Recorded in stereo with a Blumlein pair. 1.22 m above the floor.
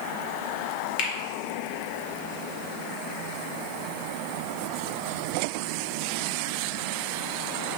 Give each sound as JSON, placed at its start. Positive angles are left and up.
{"t": 1.0, "sound": "a finger snap", "azimuth_deg": 45, "distance_m": 1.4}